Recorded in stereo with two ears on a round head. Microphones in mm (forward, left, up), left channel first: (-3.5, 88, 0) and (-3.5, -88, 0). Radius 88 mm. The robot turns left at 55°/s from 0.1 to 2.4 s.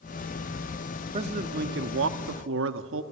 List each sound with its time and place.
1.1 s a man speaking: 30° right, 1.1 m; by 3.0 s 100° right, 1.1 m